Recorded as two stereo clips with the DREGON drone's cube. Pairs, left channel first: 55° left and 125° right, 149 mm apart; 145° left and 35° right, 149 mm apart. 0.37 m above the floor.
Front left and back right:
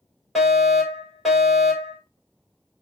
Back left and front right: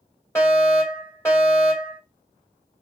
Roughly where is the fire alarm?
Behind left.